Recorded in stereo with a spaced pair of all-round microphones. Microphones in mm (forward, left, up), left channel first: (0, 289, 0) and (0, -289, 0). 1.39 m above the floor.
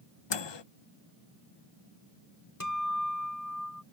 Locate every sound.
0.3 s a microwave: 45° left (ahead or behind)
2.6 s a guitar: 30° left (ahead or behind)